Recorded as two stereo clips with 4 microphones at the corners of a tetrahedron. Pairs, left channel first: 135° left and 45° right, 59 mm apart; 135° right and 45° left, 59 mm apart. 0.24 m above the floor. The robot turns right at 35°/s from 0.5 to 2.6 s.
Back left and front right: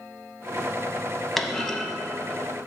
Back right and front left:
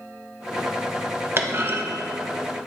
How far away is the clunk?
About 0.7 m.